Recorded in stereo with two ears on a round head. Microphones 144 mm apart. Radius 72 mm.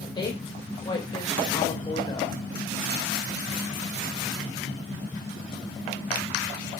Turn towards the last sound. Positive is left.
turn(degrees=30)  # may be behind; listen again after turning